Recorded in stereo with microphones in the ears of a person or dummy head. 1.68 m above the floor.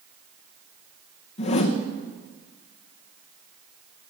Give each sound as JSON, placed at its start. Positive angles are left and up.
{"t": 1.4, "sound": "a whoosh", "side_deg": 40, "distance_m": 1.1}